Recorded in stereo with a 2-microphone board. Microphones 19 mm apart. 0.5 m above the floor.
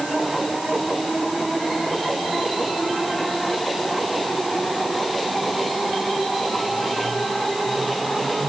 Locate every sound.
Only background noise.